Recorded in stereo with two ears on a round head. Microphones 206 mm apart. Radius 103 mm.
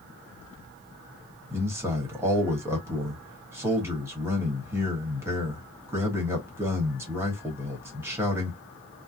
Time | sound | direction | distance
1.5 | a man speaking | 10° right (ahead or behind) | 1.1 m